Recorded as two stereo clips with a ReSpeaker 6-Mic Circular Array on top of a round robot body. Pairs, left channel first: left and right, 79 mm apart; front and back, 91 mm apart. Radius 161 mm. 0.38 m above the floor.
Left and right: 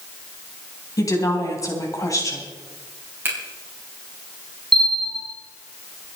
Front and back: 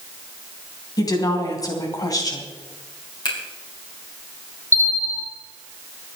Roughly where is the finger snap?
Ahead right.